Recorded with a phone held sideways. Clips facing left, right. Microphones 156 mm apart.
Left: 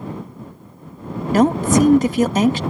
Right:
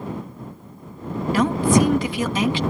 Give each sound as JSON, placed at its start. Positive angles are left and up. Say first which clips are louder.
{"t": 1.3, "sound": "a woman speaking", "louder": "left 3 dB", "side_deg": 45}